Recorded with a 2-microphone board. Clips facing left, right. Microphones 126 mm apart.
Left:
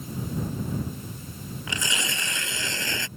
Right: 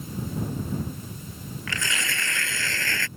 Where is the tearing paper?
20° left (ahead or behind).